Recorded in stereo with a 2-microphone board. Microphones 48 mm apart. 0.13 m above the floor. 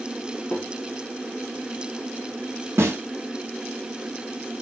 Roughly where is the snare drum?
Right.